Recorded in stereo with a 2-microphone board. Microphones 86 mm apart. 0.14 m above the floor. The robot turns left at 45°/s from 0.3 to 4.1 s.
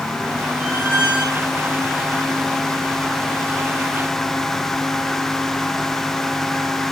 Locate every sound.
0.6 s a squeak: 155° right, 1.6 m; by 1.5 s 165° left, 1.6 m